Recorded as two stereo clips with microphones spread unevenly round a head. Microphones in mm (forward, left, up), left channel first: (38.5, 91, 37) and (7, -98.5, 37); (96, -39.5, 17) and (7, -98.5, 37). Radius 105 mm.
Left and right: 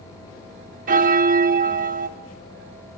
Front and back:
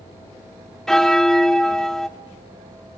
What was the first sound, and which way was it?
A bell, 60° right.